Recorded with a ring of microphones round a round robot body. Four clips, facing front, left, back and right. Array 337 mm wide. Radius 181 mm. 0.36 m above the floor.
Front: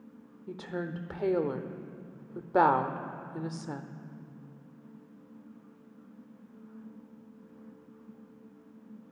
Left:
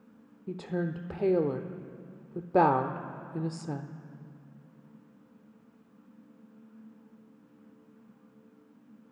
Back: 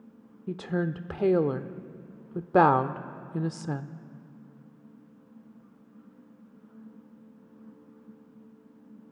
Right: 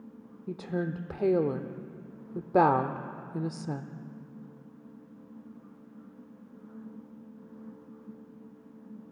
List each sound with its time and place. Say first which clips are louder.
0.5 s a woman speaking: even, back 6 dB; 175° right, 1.0 m